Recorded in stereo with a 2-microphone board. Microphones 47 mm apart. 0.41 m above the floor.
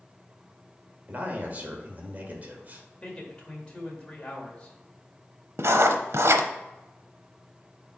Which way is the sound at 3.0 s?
20° left (ahead or behind).